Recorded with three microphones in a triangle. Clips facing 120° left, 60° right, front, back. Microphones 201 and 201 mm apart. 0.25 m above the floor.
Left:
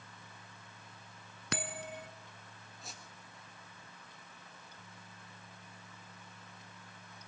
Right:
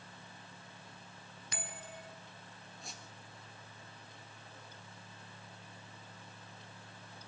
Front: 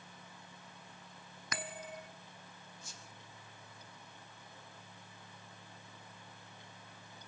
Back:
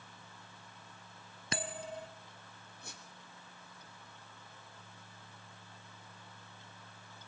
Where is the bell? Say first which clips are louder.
Left 8 dB, back 4 dB; 120° left, 1.3 m.